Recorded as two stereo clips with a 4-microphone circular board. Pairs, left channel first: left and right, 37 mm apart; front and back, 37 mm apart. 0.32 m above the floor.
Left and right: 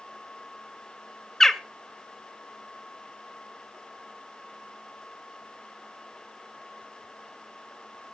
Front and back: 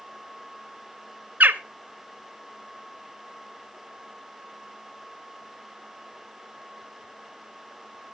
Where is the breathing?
No breathing in this recording.